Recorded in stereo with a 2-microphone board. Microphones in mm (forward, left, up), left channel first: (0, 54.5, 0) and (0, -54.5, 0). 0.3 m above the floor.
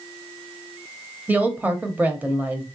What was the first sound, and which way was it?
A woman speaking, 15° right (ahead or behind).